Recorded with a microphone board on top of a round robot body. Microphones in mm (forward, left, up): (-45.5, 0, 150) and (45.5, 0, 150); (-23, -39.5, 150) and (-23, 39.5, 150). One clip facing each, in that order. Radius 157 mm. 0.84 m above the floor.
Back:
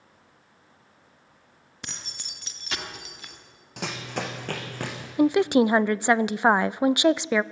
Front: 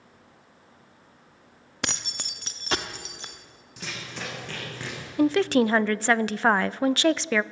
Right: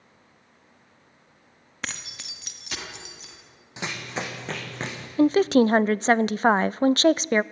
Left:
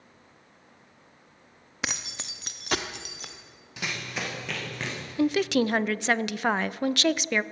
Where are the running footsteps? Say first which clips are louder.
Back 6 dB, right 2 dB; 150° right, 2.5 m; by 5.1 s 145° right, 4 m.